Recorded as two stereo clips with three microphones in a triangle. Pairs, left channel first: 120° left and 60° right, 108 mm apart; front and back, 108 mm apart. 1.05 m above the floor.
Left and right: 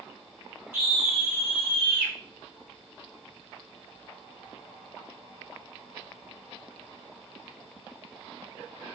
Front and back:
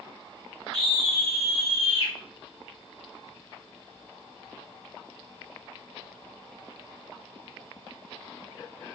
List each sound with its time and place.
0.7 s a scream: 5° left, 2.5 m; by 2.1 s 25° right, 3.5 m